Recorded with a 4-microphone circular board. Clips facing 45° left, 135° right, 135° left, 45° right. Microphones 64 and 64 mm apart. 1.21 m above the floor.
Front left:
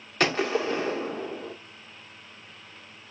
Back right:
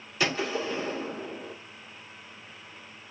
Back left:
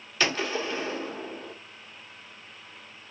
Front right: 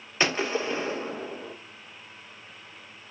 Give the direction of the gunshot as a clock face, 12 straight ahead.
11 o'clock.